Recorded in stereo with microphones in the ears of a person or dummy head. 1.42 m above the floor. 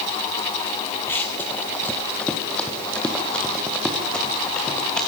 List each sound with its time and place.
1.1 s running footsteps: 10° left (ahead or behind), 2 m; by 5.0 s 5° left (ahead or behind), 5.5 m